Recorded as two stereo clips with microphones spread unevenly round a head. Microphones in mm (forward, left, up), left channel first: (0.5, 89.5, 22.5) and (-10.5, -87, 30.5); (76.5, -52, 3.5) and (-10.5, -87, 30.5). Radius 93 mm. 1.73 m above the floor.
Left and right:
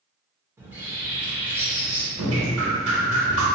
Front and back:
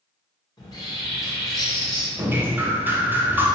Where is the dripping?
90° right, 0.7 m.